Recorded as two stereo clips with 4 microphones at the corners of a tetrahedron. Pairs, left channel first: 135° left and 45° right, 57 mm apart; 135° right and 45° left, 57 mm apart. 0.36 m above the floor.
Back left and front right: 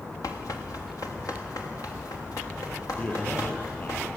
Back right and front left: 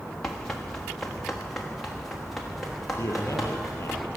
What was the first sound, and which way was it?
Running footsteps, 145° left.